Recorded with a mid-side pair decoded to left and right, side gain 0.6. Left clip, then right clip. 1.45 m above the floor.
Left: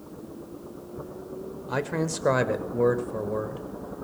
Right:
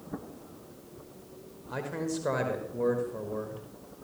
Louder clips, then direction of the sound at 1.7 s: Left 5 dB; 40° left.